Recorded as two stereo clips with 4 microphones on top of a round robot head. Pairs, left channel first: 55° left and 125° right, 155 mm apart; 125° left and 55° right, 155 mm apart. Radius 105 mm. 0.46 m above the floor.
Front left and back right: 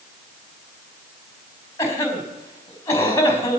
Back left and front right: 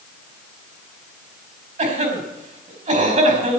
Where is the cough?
20° right, 4.5 m.